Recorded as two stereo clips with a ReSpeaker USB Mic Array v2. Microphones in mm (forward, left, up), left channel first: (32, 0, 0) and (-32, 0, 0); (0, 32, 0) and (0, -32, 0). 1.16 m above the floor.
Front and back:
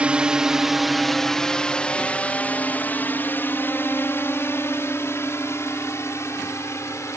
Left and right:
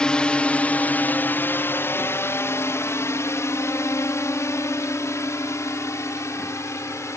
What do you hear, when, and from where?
0.0 s a drone: 145° left; by 7.2 s 45° left